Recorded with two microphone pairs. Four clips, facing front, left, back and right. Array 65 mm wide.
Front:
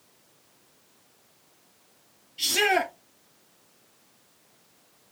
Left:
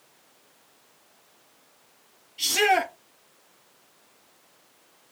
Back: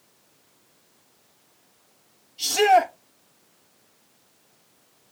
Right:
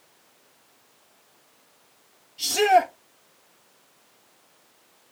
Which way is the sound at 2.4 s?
40° left.